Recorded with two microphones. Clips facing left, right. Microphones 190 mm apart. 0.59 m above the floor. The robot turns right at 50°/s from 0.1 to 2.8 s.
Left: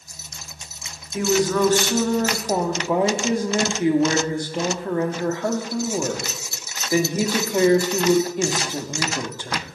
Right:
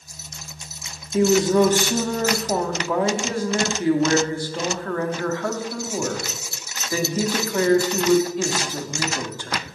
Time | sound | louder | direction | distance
1.1 | a woman speaking | right 3 dB | 55° right | 0.7 m